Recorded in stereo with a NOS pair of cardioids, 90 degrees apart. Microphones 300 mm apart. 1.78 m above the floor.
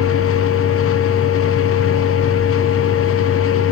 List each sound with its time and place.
0.0 s a machine running: 50° left, 0.8 m